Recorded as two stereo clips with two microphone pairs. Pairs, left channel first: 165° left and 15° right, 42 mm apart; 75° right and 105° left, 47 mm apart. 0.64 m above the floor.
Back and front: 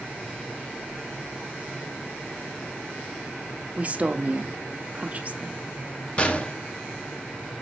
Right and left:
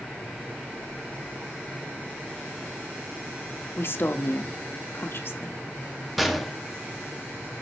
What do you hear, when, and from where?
3.8 s a woman speaking: 60° right, 1.0 m
6.2 s a gunshot: 170° right, 1.2 m